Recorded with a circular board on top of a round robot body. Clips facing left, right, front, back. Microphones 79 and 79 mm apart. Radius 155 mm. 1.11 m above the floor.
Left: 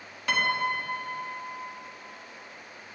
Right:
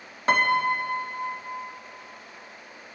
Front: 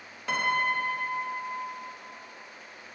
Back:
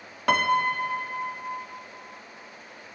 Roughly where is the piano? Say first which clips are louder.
Right 5 dB, back 5 dB; behind right.